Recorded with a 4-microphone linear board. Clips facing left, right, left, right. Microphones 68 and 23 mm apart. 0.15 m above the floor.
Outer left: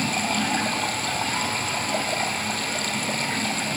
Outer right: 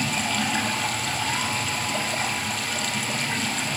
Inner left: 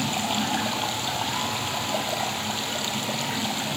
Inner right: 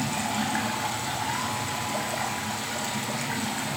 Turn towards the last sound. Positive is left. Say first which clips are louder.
# outer left 1 dB, inner left 2 dB
turn(degrees=45)  # may be behind; listen again after turning